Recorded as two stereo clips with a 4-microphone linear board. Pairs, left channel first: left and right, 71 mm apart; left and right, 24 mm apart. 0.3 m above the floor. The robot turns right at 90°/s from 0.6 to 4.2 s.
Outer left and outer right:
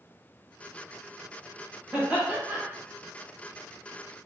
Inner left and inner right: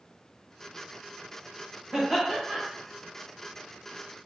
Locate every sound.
1.9 s laughter: 20° right (ahead or behind), 1.3 m